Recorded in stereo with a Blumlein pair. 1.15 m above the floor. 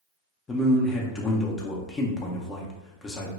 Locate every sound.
0.5 s a man speaking: 20° left, 0.5 m